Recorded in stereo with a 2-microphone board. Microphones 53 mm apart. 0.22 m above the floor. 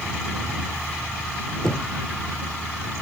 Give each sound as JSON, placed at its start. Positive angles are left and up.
{"t": 1.6, "sound": "knocking", "side_deg": 5}